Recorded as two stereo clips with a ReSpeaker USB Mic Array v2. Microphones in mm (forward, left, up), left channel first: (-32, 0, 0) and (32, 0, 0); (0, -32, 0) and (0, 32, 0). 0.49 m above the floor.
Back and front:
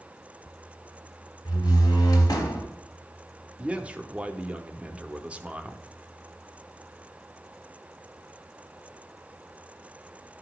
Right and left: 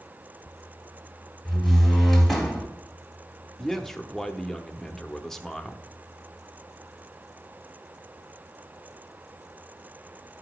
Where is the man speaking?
15° right, 0.7 m.